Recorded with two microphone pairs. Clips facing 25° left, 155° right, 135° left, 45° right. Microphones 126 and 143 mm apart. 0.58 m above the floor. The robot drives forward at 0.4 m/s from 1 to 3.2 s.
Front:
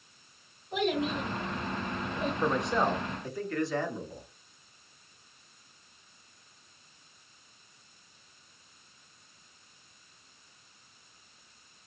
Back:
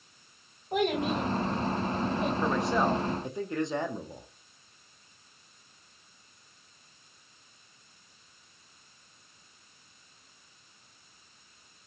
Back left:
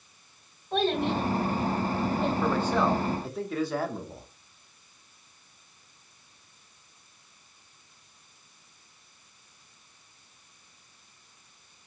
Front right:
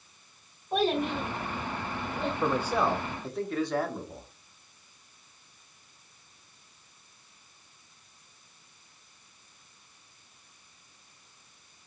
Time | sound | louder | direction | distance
0.7 | a child speaking | back 2 dB, back left 1 dB | 120° right | 1.5 m
2.4 | a man speaking | front 1 dB, front right 1 dB | 40° right | 0.6 m